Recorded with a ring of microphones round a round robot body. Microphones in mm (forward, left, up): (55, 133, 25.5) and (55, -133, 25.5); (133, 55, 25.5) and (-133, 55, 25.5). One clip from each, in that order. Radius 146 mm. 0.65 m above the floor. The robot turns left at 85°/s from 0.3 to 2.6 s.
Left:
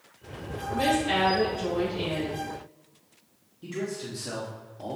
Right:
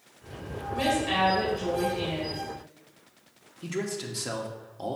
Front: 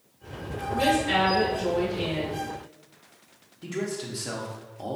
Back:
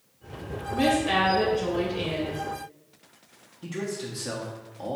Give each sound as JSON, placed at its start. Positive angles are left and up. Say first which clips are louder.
{"t": 0.7, "sound": "a woman speaking", "louder": "left 1 dB, even", "azimuth_deg": -100, "distance_m": 3.0}
{"t": 3.6, "sound": "a man speaking", "louder": "right 1 dB, front 1 dB", "azimuth_deg": -80, "distance_m": 1.0}